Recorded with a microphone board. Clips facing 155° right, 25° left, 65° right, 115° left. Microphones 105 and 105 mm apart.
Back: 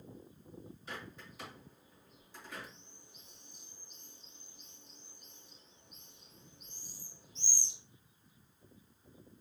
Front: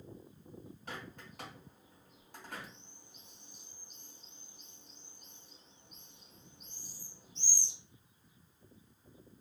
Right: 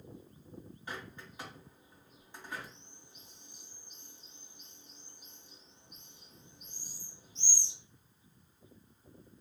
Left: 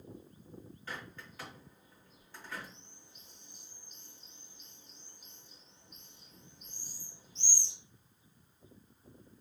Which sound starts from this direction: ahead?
A bird, at 0.9 s.